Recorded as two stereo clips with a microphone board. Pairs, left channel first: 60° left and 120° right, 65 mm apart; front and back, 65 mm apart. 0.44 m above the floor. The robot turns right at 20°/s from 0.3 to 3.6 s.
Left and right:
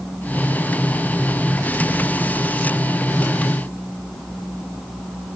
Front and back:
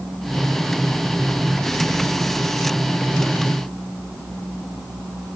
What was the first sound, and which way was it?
Only background noise.